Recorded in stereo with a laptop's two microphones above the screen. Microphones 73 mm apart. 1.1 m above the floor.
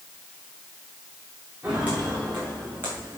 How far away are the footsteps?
About 6 m.